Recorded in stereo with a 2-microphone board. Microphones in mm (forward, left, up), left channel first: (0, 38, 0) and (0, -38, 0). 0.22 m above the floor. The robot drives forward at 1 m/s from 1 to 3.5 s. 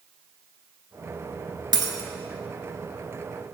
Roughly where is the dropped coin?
Right.